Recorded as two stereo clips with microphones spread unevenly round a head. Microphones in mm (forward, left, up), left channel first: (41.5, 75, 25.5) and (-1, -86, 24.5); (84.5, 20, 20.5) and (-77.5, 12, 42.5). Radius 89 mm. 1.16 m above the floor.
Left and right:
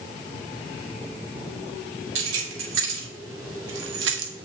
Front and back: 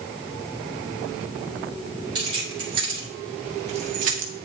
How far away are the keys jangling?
About 3 m.